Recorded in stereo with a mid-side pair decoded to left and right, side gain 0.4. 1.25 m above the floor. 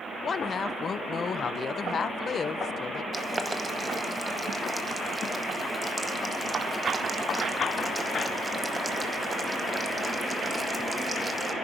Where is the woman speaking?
50° left, 0.6 m.